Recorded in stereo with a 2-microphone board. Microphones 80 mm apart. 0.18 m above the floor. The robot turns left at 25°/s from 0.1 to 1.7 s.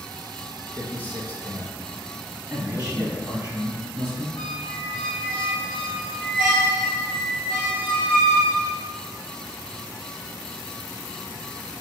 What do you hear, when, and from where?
0.7 s a man speaking: 20° left (ahead or behind), 1.0 m
2.5 s a man speaking: 15° right (ahead or behind), 1.1 m
4.4 s a squeak: 10° left (ahead or behind), 1.9 m